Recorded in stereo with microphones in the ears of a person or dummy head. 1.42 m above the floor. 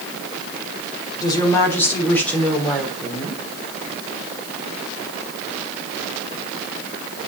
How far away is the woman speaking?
About 3.5 m.